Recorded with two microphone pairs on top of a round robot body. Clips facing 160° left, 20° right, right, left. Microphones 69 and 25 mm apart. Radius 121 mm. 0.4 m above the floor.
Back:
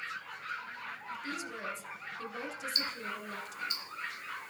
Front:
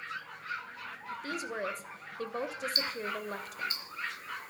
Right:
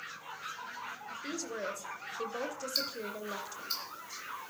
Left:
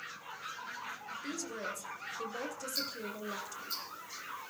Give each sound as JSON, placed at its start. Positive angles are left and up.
{"t": 1.1, "sound": "a woman speaking", "azimuth_deg": -25, "distance_m": 2.0}
{"t": 2.8, "sound": "ticking", "azimuth_deg": -65, "distance_m": 5.5}